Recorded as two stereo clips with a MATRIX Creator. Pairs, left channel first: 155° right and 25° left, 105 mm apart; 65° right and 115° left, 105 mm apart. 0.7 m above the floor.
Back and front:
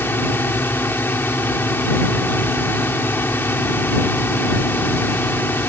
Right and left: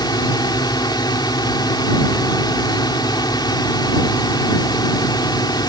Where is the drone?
95° right.